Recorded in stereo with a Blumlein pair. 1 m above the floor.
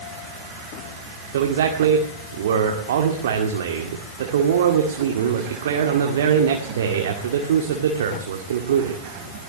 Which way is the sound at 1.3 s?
60° right.